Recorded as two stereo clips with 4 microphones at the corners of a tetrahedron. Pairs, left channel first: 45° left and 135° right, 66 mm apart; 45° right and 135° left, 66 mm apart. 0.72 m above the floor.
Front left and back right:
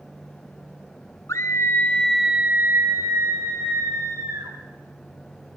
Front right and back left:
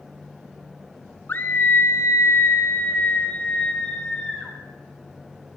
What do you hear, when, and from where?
1.3 s a scream: 10° left, 0.9 m; by 4.5 s 120° right, 1.9 m